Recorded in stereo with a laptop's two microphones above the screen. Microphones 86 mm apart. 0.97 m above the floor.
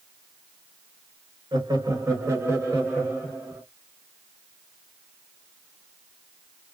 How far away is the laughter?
About 0.6 m.